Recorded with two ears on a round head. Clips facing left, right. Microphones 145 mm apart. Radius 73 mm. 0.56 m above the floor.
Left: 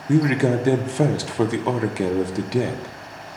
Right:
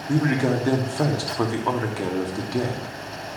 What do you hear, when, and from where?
0.1 s a man speaking: 20° left (ahead or behind), 0.6 m